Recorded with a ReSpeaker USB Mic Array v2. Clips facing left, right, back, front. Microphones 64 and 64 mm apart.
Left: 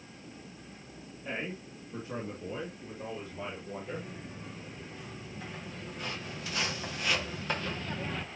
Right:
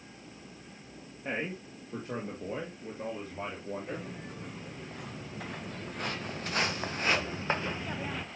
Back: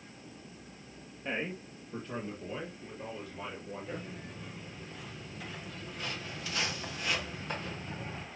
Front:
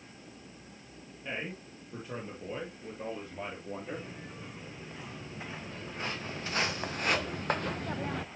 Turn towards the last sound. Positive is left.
turn(degrees=-5)